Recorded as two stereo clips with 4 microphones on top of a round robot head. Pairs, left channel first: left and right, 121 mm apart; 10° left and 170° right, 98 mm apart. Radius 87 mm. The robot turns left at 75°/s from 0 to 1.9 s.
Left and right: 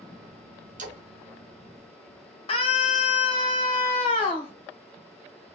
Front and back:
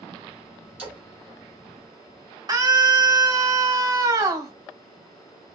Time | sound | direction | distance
0.8 | a splash | 90° right | 2.5 m
2.5 | a scream | 140° left | 2 m